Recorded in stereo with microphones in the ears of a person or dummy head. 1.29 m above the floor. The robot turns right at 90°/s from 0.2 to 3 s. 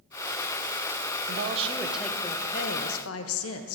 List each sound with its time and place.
1.3 s a woman speaking: 65° right, 0.9 m; by 3.8 s 90° left, 0.9 m